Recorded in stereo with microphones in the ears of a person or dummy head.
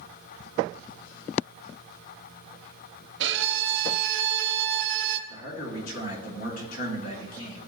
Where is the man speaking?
80° left, 2.5 m.